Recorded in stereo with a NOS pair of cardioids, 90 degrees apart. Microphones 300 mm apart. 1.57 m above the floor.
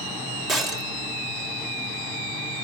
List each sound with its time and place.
0.5 s breaking glass: straight ahead, 2 m